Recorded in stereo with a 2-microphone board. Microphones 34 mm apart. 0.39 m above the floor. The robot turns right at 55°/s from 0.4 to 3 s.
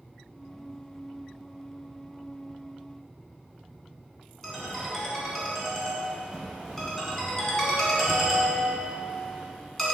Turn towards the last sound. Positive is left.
turn(degrees=5)  # may be behind; listen again after turning